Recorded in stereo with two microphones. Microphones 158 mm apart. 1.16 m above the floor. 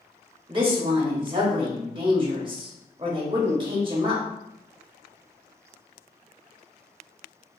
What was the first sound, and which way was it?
A woman speaking, 30° right (ahead or behind).